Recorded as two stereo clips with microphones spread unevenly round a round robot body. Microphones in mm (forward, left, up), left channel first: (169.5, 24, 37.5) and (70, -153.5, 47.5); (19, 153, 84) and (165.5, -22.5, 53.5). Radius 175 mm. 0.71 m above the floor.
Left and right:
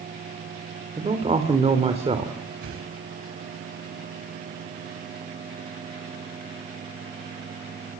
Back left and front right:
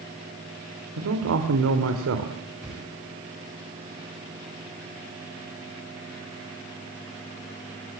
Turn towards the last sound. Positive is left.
turn(degrees=-135)